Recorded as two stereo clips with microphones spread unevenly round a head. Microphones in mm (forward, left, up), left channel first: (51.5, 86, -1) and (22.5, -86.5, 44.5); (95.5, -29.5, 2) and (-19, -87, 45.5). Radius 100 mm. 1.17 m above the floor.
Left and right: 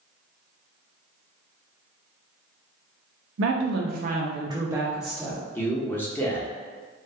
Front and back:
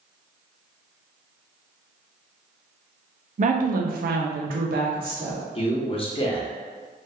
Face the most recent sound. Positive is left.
turn(degrees=10)